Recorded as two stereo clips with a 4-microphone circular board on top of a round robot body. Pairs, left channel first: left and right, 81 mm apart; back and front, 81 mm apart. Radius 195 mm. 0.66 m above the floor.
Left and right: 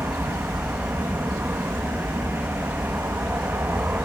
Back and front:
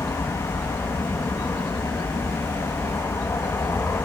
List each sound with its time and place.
0.0 s an aircraft: 145° right